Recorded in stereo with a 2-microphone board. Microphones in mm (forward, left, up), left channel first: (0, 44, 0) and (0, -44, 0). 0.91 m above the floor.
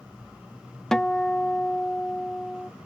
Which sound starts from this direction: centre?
A guitar, at 0.9 s.